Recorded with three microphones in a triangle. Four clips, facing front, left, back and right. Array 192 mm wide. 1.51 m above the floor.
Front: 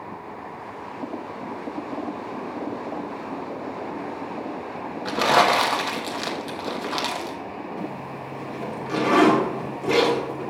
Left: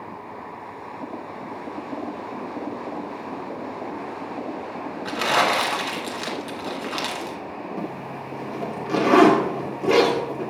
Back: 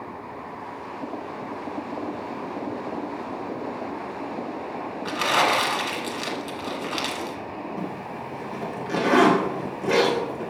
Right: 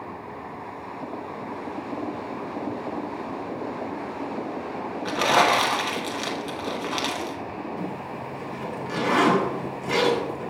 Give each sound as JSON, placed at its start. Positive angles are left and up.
{"t": 5.0, "sound": "crumpling", "azimuth_deg": -30, "distance_m": 1.2}
{"t": 7.8, "sound": "a zipper", "azimuth_deg": 105, "distance_m": 2.0}